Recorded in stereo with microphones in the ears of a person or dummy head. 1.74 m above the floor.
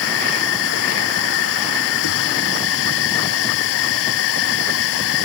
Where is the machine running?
80° left.